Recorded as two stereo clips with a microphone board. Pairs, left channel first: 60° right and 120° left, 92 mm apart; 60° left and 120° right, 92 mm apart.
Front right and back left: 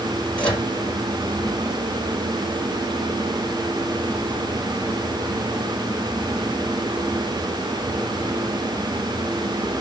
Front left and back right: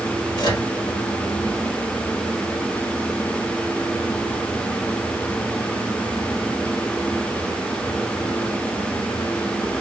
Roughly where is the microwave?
Ahead.